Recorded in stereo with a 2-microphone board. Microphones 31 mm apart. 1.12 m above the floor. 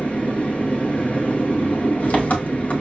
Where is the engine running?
60° left (ahead or behind), 1.1 m.